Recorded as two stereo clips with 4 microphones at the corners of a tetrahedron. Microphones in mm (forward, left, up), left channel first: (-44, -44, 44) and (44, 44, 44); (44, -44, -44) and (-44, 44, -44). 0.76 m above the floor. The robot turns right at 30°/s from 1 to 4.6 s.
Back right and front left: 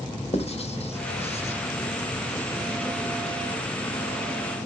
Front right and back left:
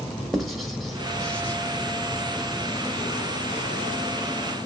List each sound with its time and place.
0.3 s writing: 135° right, 1.0 m; by 1.6 s 120° right, 1.0 m